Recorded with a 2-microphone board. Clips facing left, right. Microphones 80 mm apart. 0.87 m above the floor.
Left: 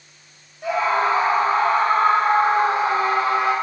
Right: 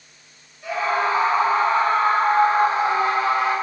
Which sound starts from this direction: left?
A scream, at 0.6 s.